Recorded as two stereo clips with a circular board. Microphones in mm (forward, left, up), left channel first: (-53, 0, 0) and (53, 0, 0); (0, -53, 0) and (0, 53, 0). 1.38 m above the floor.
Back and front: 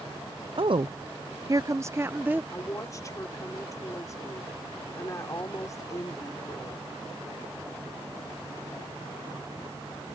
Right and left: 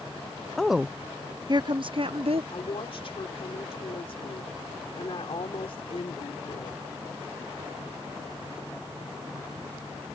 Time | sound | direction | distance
0.6 | a woman speaking | 5° right | ?
2.5 | a woman speaking | 120° right | ?